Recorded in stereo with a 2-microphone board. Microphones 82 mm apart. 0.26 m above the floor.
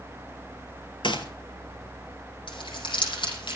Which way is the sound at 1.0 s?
75° left (ahead or behind).